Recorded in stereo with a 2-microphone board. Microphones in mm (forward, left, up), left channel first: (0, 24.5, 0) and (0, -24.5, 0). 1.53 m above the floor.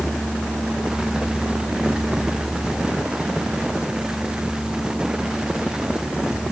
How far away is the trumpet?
I don't hear a trumpet.